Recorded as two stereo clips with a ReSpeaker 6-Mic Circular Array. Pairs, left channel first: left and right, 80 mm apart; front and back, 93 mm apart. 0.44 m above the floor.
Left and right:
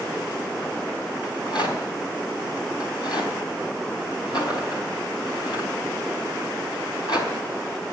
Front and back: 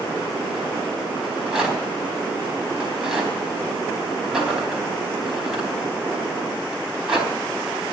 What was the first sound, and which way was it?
A rattle, 100° left.